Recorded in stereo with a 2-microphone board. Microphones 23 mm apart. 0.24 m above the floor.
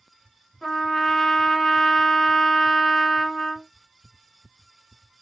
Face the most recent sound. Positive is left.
turn(degrees=25)  # may be behind; listen again after turning